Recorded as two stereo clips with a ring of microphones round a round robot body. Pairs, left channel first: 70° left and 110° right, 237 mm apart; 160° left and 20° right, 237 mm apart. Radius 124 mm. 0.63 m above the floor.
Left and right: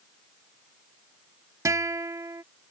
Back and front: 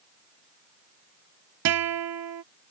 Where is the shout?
I don't hear a shout.